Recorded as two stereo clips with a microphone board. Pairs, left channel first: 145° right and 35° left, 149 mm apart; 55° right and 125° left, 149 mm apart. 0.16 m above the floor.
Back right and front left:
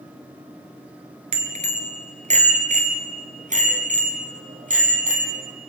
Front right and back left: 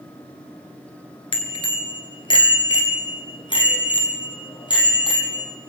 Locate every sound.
1.3 s a bicycle bell: 5° right, 2 m; by 5.5 s 5° left, 5 m